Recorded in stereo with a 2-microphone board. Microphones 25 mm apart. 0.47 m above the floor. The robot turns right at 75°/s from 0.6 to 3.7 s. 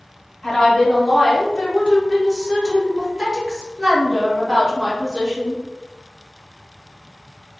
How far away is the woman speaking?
About 0.8 m.